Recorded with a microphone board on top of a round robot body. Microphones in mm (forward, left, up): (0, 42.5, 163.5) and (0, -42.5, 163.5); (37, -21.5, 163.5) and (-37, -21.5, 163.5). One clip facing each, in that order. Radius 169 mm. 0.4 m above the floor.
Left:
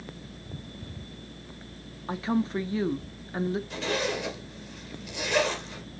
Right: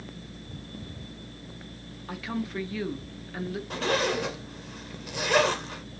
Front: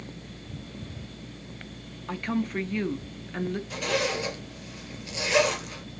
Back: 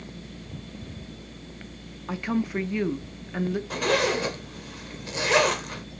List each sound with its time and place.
2.1 s a woman speaking: 105° left, 0.9 m
3.7 s a zipper: 135° right, 0.9 m